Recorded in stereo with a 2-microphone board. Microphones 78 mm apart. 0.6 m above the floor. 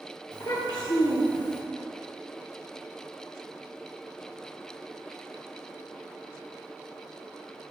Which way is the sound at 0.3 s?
65° left (ahead or behind).